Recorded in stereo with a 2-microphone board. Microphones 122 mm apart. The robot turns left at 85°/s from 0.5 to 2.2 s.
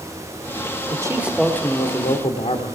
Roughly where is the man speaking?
Behind right.